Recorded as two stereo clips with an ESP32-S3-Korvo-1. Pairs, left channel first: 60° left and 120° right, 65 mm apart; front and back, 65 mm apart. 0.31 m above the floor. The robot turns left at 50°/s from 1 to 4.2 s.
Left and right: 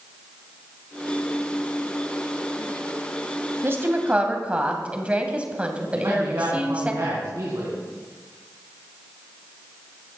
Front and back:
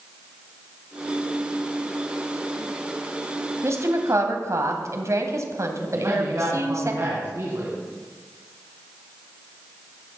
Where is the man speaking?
145° right, 4 m.